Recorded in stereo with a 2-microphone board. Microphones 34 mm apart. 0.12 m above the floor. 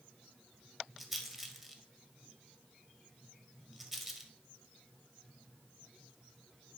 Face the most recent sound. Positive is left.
turn(degrees=0)  # may be behind; listen again after turning